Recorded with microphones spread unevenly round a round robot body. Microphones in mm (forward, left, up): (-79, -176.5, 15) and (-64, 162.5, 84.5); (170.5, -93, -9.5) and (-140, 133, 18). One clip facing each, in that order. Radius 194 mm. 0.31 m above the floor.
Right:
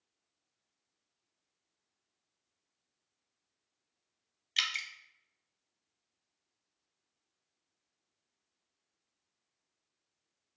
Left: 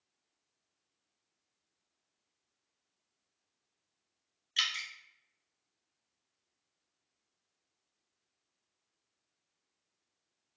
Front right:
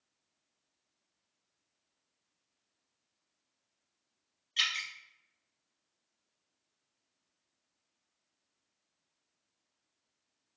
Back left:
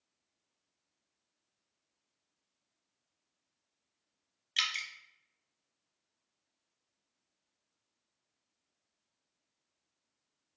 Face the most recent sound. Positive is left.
turn(degrees=-160)